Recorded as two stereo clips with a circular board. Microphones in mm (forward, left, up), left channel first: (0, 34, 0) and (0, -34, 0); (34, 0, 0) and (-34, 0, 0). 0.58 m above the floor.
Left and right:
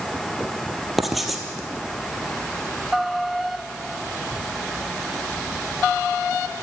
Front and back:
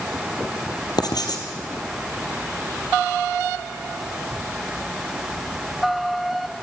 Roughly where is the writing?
Ahead.